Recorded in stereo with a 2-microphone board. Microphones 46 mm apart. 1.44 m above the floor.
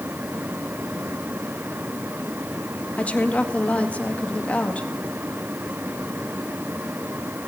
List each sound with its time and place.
3.0 s a woman speaking: 30° left (ahead or behind), 2.0 m